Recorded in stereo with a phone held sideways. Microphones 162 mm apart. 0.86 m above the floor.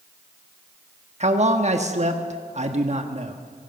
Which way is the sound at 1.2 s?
45° right (ahead or behind).